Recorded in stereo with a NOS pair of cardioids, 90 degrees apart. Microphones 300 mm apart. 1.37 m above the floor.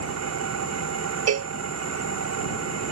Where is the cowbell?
60° right.